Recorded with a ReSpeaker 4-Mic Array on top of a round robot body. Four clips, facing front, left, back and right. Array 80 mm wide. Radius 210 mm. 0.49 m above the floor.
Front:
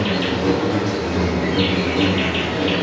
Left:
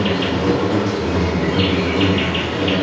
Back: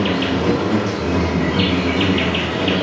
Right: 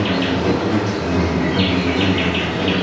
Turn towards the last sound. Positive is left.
turn(degrees=170)